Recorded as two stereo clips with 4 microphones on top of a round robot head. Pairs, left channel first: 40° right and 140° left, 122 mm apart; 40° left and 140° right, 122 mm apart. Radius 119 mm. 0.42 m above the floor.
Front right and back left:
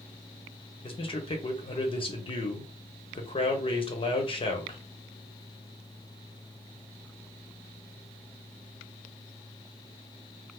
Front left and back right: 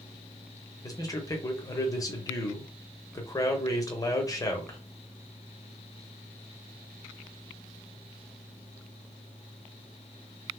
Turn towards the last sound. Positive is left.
turn(degrees=-15)